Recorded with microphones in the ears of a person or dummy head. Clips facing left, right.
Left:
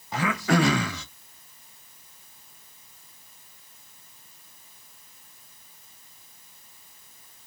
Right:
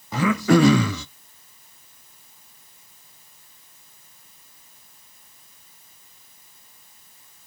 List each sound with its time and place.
0.1 s throat clearing: 80° right, 0.6 m